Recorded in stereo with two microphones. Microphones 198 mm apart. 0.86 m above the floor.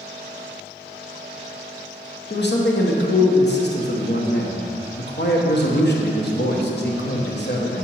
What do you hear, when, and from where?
2.3 s a man speaking: 60° left (ahead or behind), 0.8 m